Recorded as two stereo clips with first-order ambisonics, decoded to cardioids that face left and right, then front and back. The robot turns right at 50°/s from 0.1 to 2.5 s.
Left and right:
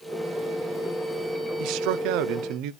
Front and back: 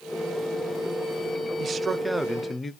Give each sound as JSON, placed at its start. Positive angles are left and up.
{"t": 1.6, "sound": "a man speaking", "azimuth_deg": -120, "distance_m": 0.5}